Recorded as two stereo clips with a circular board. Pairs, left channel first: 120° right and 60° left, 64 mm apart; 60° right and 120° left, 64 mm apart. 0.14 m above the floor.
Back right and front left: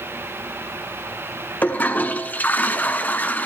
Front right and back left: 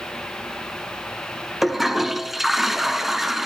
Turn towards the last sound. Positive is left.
turn(degrees=-155)